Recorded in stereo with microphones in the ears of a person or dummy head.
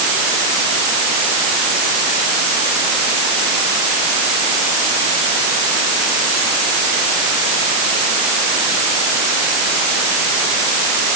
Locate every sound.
Only background noise.